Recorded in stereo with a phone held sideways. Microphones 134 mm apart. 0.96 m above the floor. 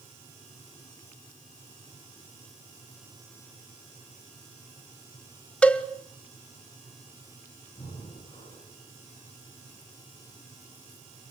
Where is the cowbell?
10° left (ahead or behind), 1.3 m.